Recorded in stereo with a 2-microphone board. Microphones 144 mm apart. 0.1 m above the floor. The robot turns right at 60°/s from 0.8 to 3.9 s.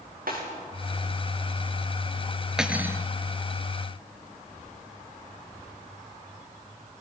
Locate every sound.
0.3 s a snare drum: 90° right, 7.5 m
2.6 s cutlery clinking: 5° right (ahead or behind), 1.1 m; by 3.0 s 20° right (ahead or behind), 1.1 m